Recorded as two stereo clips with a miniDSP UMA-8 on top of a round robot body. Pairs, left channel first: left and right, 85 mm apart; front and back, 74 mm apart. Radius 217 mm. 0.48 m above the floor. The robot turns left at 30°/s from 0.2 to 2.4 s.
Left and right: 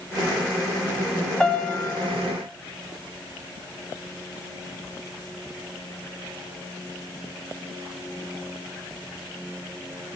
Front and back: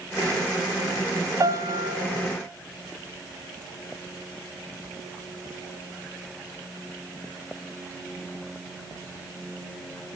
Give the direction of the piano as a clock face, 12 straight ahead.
6 o'clock.